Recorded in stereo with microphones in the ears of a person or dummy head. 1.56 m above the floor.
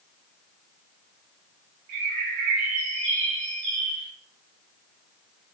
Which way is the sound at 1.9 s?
45° right (ahead or behind).